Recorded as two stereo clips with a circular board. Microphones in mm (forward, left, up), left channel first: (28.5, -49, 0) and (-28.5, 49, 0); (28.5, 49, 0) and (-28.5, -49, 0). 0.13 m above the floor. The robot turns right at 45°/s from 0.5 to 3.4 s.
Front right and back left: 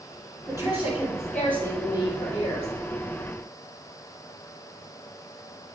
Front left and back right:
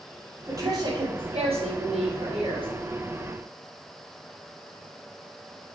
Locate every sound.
0.5 s a woman speaking: 175° left, 3 m; by 2.7 s 85° right, 3 m